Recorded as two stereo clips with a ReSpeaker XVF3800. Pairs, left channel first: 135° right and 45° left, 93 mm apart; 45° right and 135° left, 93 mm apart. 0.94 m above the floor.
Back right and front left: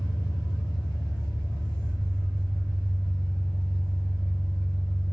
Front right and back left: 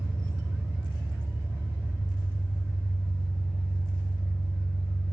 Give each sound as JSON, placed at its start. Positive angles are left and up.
{"t": 0.0, "sound": "an engine running", "azimuth_deg": -155, "distance_m": 1.8}